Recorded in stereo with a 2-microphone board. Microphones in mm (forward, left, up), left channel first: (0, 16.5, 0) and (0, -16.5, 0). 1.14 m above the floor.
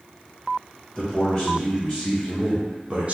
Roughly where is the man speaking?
Left.